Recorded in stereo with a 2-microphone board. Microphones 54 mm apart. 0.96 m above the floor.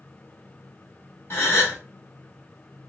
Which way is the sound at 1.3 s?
50° left (ahead or behind).